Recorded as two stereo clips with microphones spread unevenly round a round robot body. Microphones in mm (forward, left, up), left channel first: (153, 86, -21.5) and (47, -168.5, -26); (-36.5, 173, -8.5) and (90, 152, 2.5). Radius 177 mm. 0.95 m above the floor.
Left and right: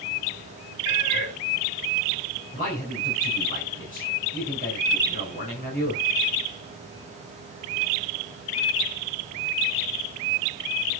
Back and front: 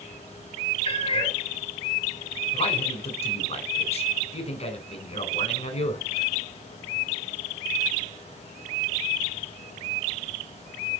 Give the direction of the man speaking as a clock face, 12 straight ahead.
7 o'clock.